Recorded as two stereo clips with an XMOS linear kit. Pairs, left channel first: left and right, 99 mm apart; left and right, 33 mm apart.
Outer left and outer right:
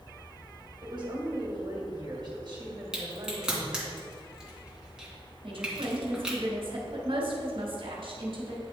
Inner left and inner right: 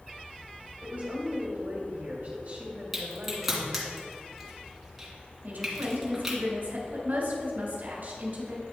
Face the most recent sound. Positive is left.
turn(degrees=-60)  # may be behind; listen again after turning